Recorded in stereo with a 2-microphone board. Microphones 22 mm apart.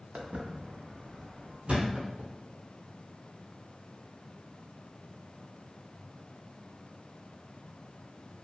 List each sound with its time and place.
0.1 s footsteps: 75° right (ahead or behind), 0.8 m; by 1.6 s 5° right (ahead or behind), 1.3 m
1.7 s a thud: 50° right (ahead or behind), 1.0 m